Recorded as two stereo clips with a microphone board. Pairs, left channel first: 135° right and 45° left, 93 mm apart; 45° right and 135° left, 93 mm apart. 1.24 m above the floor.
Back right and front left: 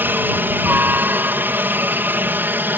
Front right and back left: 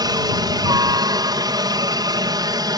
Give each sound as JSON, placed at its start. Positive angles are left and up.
{"t": 0.0, "sound": "a helicopter", "azimuth_deg": 110}